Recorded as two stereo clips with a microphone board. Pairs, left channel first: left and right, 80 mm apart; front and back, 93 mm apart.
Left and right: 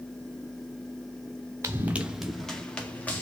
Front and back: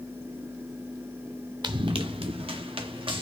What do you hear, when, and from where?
1.6 s running footsteps: 145° right, 0.8 m; by 3.2 s 160° left, 1.8 m